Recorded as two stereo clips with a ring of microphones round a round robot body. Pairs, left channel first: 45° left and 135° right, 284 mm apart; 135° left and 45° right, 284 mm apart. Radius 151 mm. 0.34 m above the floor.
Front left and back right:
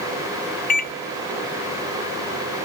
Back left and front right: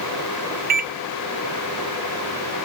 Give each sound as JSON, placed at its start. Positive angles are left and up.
{"t": 0.7, "sound": "a microwave", "azimuth_deg": 0, "distance_m": 0.8}